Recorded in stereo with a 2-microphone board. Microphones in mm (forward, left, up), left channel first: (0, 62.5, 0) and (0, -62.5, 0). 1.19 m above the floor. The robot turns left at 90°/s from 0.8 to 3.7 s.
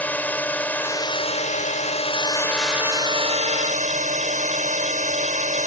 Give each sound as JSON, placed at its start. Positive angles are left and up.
{"t": 0.0, "sound": "a drone", "azimuth_deg": 165}